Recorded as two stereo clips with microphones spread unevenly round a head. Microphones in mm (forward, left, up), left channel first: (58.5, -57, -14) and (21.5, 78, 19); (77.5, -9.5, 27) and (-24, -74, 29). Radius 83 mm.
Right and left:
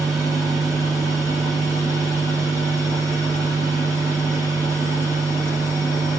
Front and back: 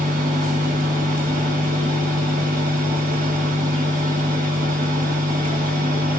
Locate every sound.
0.0 s a fan: 155° right, 1.0 m